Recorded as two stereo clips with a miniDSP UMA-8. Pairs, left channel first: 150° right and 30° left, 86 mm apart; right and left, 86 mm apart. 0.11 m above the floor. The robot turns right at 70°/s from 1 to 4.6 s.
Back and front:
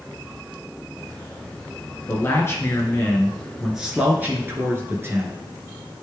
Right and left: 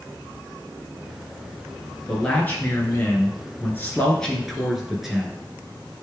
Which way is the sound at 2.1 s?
165° right.